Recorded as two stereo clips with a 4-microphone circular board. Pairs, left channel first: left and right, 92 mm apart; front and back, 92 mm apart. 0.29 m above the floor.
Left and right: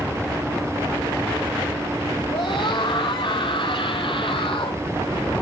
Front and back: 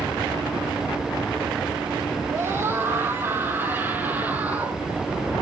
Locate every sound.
2.3 s a scream: 115° left, 8 m; by 4.8 s 105° left, 7.5 m